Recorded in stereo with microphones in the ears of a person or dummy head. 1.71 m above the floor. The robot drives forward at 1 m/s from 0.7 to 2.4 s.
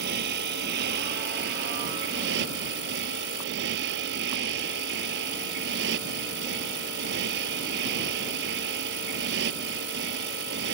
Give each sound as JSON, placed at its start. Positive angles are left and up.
{"t": 0.0, "sound": "a motorcycle", "side_deg": -55}